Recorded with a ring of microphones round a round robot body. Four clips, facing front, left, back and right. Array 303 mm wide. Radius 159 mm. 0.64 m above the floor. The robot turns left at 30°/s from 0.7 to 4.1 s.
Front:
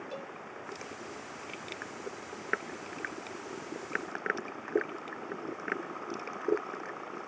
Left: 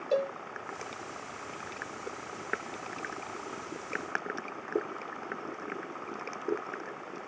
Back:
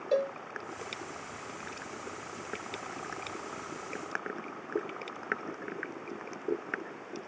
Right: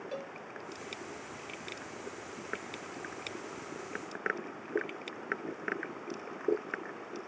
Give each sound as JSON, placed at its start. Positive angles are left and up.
{"t": 0.1, "sound": "a cowbell", "azimuth_deg": 140}